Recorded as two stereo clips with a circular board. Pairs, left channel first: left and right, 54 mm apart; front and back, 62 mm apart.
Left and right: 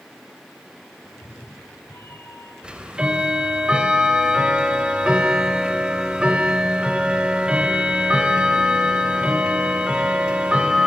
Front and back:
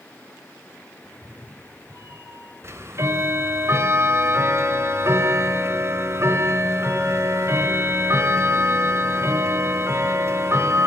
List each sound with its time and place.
1.0 s a cat meowing: 135° left, 2.5 m; by 2.5 s 130° left, 3.5 m
2.6 s ticking: 160° right, 2 m